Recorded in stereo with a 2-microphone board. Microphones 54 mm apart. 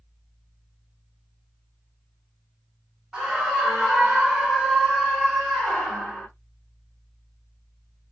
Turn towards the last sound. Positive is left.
turn(degrees=10)  # may be behind; listen again after turning